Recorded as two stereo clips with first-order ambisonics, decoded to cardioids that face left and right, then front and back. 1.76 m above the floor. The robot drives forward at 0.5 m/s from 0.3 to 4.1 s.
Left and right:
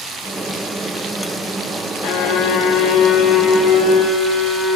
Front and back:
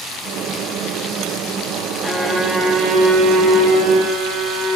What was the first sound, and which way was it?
A violin, 90° left.